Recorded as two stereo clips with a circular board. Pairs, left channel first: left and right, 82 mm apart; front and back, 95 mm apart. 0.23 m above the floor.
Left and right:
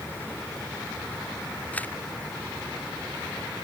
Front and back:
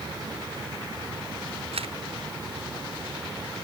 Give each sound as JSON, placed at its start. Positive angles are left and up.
{"t": 1.7, "sound": "a camera shutter", "azimuth_deg": 160}